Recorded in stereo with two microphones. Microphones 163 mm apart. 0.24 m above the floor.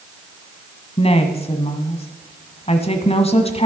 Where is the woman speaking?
40° left (ahead or behind), 1.4 m.